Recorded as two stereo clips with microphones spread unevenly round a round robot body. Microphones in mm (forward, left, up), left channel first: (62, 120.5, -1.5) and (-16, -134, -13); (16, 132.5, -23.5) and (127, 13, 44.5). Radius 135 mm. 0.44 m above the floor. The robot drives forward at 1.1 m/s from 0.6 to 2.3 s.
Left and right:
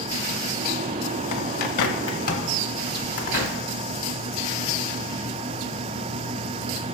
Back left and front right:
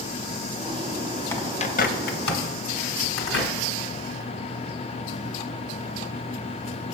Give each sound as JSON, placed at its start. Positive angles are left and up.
{"t": 1.3, "sound": "a bird", "azimuth_deg": 55, "distance_m": 0.8}